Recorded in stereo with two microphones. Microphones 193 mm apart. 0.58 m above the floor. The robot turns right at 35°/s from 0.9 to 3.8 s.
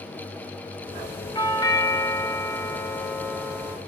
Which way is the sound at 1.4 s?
20° left (ahead or behind).